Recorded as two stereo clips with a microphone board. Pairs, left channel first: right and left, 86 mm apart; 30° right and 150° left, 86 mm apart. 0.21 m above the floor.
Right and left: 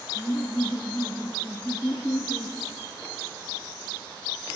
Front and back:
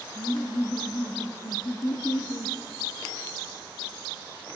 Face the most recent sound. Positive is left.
turn(degrees=-15)